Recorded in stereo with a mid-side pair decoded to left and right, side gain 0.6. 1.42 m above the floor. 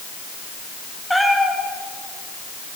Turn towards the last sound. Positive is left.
turn(degrees=0)